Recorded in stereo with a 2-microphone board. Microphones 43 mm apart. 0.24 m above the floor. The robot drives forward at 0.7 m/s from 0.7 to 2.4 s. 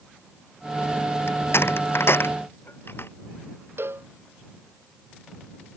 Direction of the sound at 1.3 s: 70° left (ahead or behind).